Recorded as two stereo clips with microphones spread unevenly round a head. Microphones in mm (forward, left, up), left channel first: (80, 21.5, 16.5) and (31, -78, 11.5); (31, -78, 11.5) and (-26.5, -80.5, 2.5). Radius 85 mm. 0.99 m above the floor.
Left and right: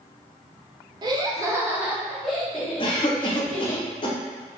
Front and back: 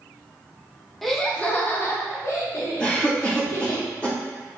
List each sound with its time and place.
1.0 s laughter: 95° right, 0.8 m; by 3.8 s 10° right, 1.7 m
2.8 s a cough: 80° left, 0.7 m